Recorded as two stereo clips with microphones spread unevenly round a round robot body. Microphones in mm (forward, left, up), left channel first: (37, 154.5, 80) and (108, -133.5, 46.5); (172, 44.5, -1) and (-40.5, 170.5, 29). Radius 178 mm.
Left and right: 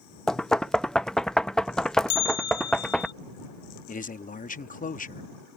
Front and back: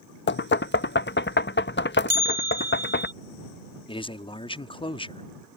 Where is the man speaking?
35° left.